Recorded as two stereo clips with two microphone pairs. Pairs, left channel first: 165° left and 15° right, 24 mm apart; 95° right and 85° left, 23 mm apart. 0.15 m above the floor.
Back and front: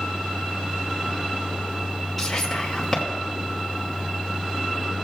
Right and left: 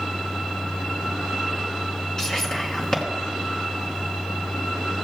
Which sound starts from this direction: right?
Whispering, at 2.2 s.